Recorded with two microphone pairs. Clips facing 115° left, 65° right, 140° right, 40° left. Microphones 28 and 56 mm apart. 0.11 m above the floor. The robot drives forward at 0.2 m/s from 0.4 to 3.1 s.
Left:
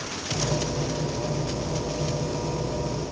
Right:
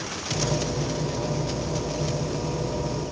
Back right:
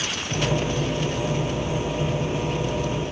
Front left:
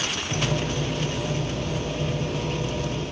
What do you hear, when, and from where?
Only background noise.